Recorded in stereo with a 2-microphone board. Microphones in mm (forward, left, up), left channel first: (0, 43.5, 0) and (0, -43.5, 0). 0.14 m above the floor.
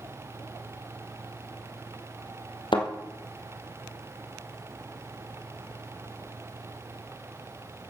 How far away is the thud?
About 2 m.